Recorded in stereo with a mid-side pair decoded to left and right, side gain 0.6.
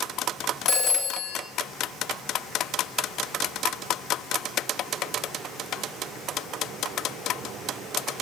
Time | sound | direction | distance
0.7 | a phone ringing | 40° left | 4 m